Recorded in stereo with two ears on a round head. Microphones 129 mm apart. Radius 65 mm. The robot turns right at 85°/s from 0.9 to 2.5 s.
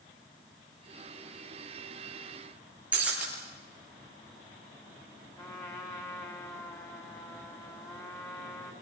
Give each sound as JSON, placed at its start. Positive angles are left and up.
{"t": 2.9, "sound": "breaking glass", "side_deg": -10, "distance_m": 8.0}
{"t": 5.4, "sound": "a trumpet", "side_deg": 20, "distance_m": 3.5}